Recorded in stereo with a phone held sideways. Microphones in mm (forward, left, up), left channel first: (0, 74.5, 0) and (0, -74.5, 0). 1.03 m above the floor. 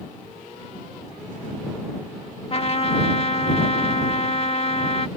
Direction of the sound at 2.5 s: 40° left (ahead or behind).